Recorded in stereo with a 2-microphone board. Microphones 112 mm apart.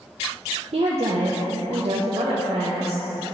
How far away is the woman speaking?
About 0.8 m.